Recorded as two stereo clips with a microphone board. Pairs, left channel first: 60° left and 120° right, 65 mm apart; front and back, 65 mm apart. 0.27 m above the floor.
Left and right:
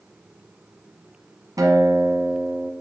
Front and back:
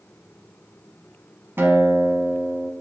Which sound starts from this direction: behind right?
A guitar, at 1.6 s.